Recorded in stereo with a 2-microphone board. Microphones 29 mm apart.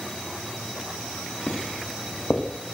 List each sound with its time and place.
1.5 s footsteps: 85° left, 6.5 m